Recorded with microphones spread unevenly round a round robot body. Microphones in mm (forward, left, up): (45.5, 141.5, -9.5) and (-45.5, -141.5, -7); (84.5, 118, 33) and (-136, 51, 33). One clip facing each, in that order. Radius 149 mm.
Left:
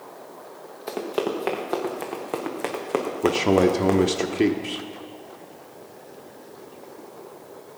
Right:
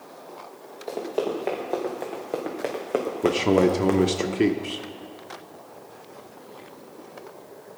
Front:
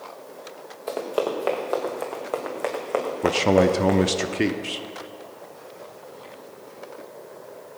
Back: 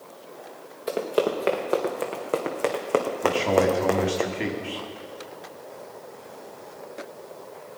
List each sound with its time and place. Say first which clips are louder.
0.9 s running footsteps: left 1 dB, back 2 dB; 125° left, 3.5 m; by 4.2 s 170° left, 2 m
3.2 s a man speaking: left 1 dB, front 5 dB; 20° right, 0.8 m